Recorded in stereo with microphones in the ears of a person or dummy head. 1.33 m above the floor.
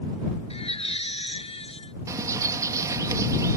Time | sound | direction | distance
0.5 | a baby crying | 35° left (ahead or behind) | ?
2.1 | a bird | 20° right (ahead or behind) | ?